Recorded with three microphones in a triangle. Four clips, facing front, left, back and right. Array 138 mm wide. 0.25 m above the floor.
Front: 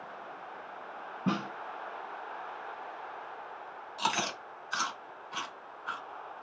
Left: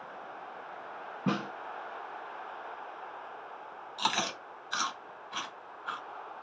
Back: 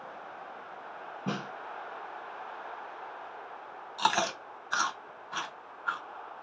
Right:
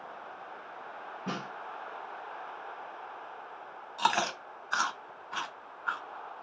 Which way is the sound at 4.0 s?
135° right.